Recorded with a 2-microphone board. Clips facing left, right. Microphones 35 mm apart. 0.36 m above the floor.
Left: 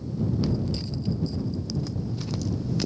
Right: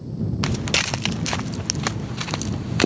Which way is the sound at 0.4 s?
85° right.